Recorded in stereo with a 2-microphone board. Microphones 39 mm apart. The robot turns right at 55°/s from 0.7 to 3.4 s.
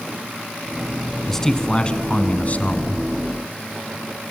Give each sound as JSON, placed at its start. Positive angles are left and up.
{"t": 1.3, "sound": "a man speaking", "azimuth_deg": 10, "distance_m": 1.3}